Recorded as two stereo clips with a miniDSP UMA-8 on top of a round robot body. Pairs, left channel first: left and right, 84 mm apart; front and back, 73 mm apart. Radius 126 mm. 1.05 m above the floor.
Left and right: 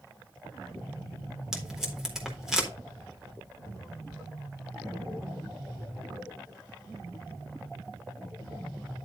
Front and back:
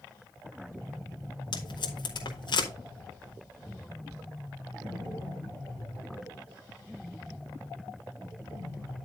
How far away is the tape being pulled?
About 4 m.